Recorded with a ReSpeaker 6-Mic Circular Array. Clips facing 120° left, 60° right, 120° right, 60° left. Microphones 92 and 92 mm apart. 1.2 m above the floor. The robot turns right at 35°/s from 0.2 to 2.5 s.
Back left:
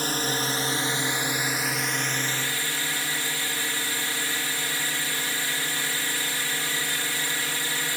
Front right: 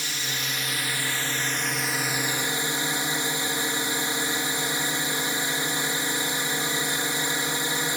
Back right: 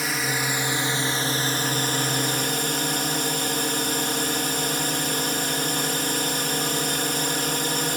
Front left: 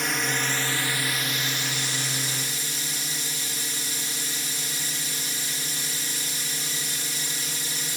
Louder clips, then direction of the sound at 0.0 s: Back left 6 dB, back right 1 dB; 150° left.